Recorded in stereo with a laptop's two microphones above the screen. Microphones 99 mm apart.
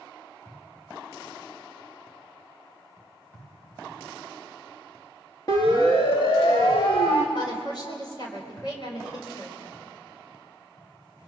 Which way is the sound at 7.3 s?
45° left (ahead or behind).